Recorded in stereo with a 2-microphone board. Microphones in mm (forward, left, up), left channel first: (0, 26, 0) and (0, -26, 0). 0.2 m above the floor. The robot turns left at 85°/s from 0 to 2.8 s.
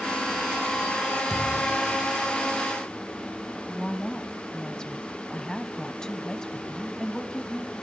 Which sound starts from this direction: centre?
A woman speaking, at 3.6 s.